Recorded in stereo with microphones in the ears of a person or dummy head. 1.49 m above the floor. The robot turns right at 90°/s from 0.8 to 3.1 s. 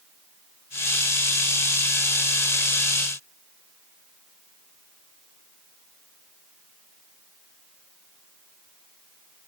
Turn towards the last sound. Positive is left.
No sound to turn to.